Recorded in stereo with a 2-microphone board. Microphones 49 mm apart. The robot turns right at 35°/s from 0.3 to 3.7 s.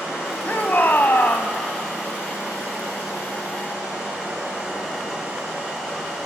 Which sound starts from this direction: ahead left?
A shout, at 0.5 s.